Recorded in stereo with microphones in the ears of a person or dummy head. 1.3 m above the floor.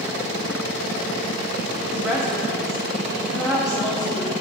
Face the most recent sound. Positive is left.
turn(degrees=-5)  # may be behind; listen again after turning